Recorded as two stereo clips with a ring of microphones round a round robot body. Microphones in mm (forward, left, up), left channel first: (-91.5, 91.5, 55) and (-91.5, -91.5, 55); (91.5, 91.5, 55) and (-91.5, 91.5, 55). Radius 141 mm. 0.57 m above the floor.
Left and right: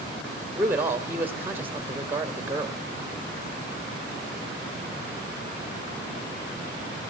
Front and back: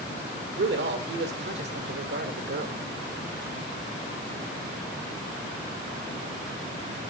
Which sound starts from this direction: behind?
A man speaking, at 0.6 s.